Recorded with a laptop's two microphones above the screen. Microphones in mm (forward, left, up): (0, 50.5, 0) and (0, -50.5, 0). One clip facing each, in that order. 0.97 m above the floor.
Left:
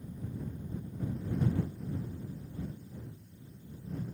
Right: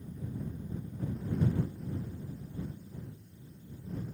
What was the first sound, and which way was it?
Only background noise.